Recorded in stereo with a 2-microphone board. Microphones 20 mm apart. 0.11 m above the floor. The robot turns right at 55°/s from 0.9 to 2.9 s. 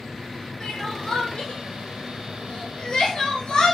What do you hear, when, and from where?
0.6 s crying: 30° left (ahead or behind), 1.3 m; by 3.8 s 40° left (ahead or behind), 1.3 m